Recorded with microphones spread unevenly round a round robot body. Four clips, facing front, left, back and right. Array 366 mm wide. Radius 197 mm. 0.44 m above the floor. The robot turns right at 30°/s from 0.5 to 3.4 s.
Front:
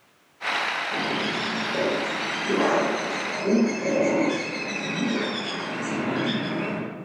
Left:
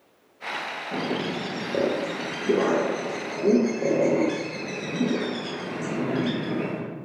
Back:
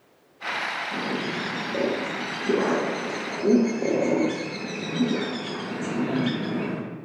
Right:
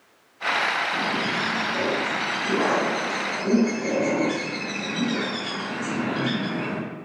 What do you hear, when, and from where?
0.9 s a bird: 65° left, 0.7 m; by 6.8 s 140° left, 0.7 m